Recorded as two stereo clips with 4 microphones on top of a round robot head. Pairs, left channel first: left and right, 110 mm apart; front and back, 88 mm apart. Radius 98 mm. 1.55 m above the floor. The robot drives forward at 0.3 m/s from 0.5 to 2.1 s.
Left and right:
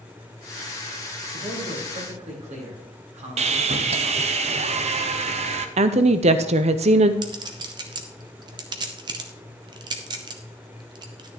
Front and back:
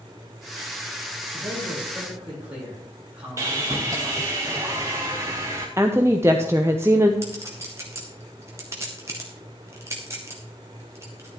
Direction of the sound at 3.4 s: 110° right.